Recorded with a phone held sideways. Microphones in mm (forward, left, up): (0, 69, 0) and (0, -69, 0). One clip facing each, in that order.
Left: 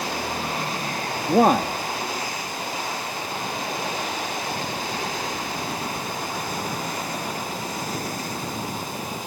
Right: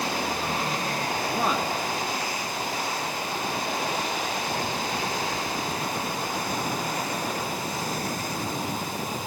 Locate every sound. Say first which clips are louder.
1.3 s a man speaking: left 12 dB; 55° left (ahead or behind)